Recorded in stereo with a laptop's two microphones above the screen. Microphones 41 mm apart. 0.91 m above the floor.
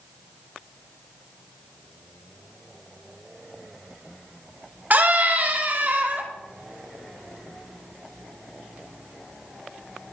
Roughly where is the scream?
Right.